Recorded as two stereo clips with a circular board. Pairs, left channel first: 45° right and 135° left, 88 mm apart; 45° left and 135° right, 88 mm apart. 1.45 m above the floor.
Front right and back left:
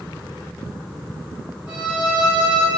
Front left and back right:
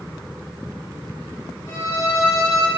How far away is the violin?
About 1.1 m.